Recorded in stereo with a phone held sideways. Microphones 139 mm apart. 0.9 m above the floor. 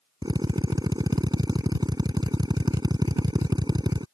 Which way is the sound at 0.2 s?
30° right (ahead or behind).